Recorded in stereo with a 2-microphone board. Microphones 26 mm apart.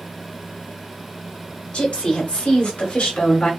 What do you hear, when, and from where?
1.7 s a woman speaking: 45° left (ahead or behind), 1.7 m; by 3.5 s 60° left (ahead or behind), 2.5 m